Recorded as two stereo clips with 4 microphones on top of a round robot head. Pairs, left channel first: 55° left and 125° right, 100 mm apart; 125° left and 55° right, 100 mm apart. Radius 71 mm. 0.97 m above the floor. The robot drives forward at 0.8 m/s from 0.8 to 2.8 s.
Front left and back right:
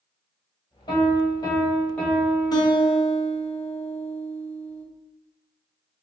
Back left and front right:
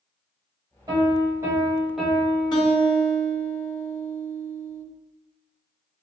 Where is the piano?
5° left, 1.1 m; by 3.0 s 175° left, 0.8 m.